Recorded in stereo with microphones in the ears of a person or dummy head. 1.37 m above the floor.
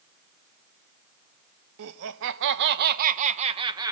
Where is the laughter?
80° right, 1.2 m; by 3.9 s 15° right (ahead or behind), 1.0 m.